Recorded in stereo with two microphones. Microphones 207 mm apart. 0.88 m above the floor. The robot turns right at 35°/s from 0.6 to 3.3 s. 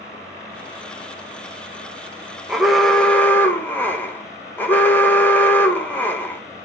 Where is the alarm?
Centre (ahead or behind), 0.6 m; by 6.4 s 10° left (ahead or behind), 0.6 m.